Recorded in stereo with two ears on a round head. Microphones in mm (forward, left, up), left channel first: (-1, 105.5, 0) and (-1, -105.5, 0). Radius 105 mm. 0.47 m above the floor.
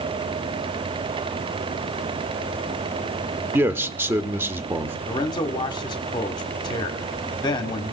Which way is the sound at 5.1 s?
20° left (ahead or behind).